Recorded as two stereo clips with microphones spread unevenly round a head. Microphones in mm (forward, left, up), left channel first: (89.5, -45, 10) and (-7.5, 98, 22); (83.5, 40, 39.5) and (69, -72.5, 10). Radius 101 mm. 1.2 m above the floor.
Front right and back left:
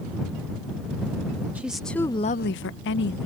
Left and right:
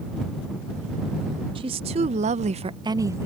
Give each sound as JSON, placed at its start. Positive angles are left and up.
{"t": 1.6, "sound": "a woman speaking", "azimuth_deg": -155}